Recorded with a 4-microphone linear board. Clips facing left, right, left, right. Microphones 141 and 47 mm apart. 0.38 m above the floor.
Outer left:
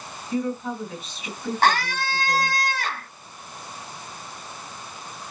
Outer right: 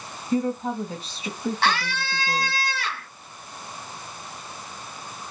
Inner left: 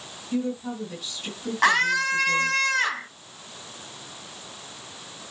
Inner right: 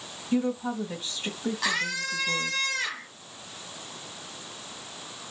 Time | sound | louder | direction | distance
0.3 | a woman speaking | outer right 2 dB, inner right 1 dB | 30° right (ahead or behind) | 2.5 m
1.6 | a scream | outer left 6 dB, inner left 11 dB | 45° left (ahead or behind) | 2.5 m